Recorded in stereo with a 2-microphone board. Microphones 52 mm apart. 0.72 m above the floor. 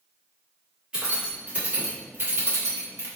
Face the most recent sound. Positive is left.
turn(degrees=-60)  # may be behind; listen again after turning